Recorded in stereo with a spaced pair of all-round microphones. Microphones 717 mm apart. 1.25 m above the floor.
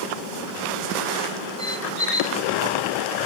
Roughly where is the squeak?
Left.